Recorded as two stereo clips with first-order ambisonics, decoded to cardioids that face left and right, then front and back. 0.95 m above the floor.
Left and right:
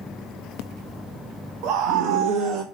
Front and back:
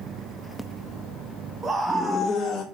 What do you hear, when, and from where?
1.6 s a scream: 110° right, 0.7 m; by 2.6 s 60° right, 0.9 m